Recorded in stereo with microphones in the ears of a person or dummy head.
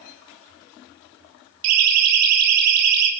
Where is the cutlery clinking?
I don't hear cutlery clinking.